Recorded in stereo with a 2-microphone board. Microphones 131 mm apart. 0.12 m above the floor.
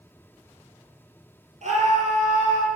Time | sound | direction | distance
1.6 | a scream | 60° right (ahead or behind) | 3 m